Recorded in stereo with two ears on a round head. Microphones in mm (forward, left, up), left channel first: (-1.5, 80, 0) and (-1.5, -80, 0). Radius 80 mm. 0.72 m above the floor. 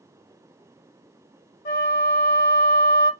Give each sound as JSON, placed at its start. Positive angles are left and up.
{"t": 1.6, "sound": "a flute", "side_deg": 45, "distance_m": 1.1}